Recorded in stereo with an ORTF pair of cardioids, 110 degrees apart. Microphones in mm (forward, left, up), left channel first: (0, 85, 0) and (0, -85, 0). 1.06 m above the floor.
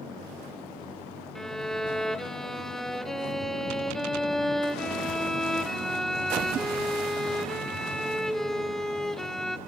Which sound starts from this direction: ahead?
A violin, at 1.4 s.